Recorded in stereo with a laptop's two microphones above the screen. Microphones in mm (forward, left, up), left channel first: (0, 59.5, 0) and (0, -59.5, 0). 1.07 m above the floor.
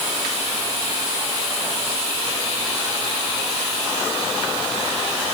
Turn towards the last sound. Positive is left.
No sound to turn to.